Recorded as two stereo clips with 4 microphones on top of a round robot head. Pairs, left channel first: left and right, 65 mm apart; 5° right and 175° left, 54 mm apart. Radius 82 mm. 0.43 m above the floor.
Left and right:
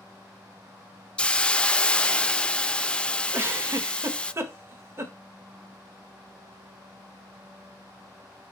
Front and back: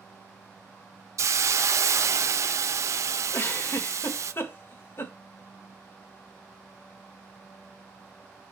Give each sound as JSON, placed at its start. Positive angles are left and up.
{"t": 1.2, "sound": "a hiss", "azimuth_deg": 165, "distance_m": 0.7}
{"t": 3.3, "sound": "a giggle", "azimuth_deg": -45, "distance_m": 1.8}